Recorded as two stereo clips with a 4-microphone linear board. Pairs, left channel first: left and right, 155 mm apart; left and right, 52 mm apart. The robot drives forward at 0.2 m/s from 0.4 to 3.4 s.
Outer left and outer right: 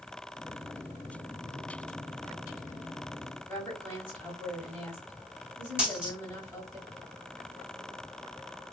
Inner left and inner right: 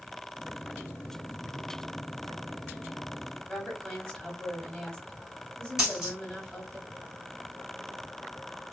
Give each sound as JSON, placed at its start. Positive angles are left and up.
{"t": 3.5, "sound": "a woman speaking", "side_deg": 15, "distance_m": 2.5}
{"t": 5.8, "sound": "a dropped coin", "side_deg": -10, "distance_m": 2.0}